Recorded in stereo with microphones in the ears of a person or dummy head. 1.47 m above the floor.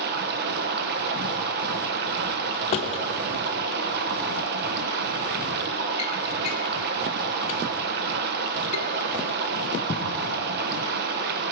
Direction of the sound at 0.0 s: 55° right (ahead or behind).